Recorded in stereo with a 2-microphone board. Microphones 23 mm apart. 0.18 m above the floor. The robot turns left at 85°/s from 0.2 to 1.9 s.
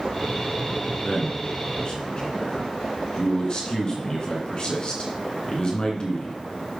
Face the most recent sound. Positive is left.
turn(degrees=40)  # may be behind; listen again after turning